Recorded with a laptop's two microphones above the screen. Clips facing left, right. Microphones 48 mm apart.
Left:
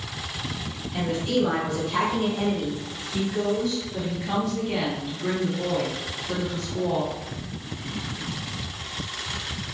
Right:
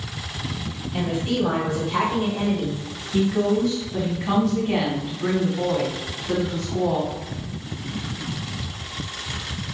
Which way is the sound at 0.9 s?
20° right (ahead or behind).